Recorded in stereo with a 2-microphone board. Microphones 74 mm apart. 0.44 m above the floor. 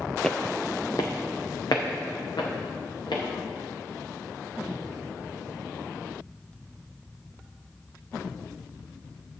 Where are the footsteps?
10° left (ahead or behind), 0.6 m; by 3.2 s 70° left (ahead or behind), 4 m.